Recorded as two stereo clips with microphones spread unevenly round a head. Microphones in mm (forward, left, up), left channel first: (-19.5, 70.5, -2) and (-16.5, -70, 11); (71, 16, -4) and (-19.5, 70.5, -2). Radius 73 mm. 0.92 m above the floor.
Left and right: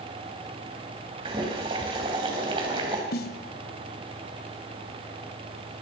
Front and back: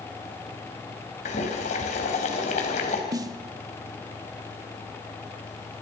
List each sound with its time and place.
1.2 s boiling: 30° right, 4 m
3.1 s a snare drum: 100° left, 1.2 m